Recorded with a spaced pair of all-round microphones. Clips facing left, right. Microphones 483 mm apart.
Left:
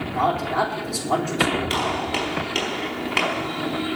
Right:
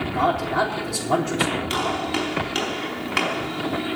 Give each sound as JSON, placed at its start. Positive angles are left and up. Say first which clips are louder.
{"t": 0.1, "sound": "a man speaking", "louder": "even", "side_deg": -35, "distance_m": 3.5}
{"t": 1.7, "sound": "a gunshot", "louder": "right 1 dB", "side_deg": -30, "distance_m": 4.5}